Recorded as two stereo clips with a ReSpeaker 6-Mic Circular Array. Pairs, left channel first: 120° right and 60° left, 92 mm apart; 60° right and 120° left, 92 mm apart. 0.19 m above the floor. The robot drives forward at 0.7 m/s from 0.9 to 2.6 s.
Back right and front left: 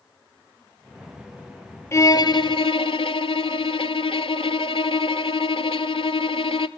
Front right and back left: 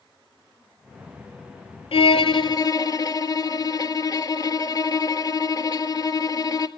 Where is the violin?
60° right, 0.6 m; by 6.7 s 105° right, 0.6 m.